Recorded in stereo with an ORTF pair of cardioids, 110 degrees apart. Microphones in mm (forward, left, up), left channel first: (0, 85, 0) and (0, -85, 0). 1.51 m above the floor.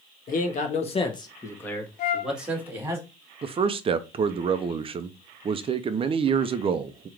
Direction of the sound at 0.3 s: 55° left.